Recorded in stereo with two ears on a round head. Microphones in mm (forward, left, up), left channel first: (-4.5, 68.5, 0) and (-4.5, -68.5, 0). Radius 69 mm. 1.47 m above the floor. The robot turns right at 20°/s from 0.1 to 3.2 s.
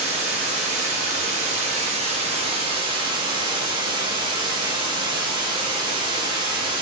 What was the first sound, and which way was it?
Running water, 105° right.